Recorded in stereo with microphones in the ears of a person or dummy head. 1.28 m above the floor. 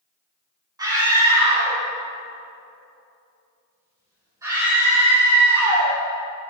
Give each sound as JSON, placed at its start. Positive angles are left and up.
{"t": 0.8, "sound": "a scream", "side_deg": -20, "distance_m": 2.5}